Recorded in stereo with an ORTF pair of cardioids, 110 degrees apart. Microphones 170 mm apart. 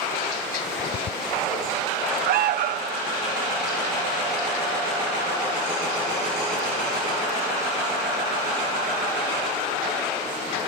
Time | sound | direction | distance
0.6 | ticking | 50° left | ?
2.3 | an alarm | 70° right | ?